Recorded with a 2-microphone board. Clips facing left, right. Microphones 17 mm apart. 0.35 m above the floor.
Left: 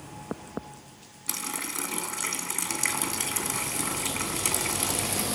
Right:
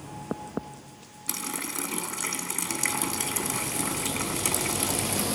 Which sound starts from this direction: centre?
A running tap, at 1.3 s.